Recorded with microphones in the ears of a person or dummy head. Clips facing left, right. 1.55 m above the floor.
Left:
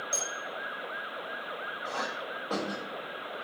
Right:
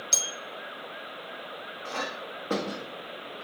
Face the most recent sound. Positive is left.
turn(degrees=-25)  # may be behind; listen again after turning